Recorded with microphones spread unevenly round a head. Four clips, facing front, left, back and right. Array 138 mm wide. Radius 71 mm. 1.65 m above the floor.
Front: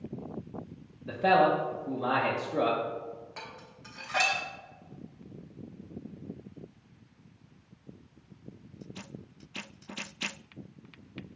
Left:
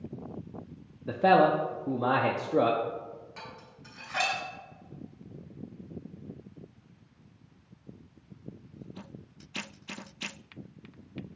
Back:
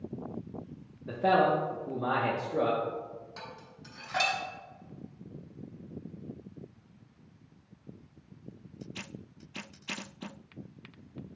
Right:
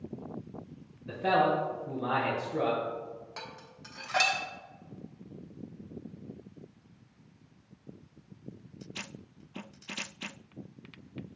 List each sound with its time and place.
1.1 s a man speaking: 90° left, 0.5 m
3.4 s dishes clattering: 75° right, 0.8 m